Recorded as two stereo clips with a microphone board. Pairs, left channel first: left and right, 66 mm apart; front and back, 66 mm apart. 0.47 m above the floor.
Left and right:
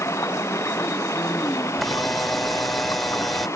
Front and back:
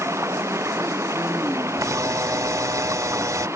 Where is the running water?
135° left.